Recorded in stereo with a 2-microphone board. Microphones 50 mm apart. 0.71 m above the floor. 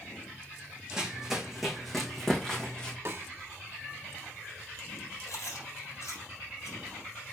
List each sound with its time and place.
0.9 s running footsteps: 15° right (ahead or behind), 2.5 m; by 3.0 s 15° left (ahead or behind), 3 m
3.0 s a snare drum: 50° right (ahead or behind), 1.0 m
5.3 s chewing: 85° left, 2 m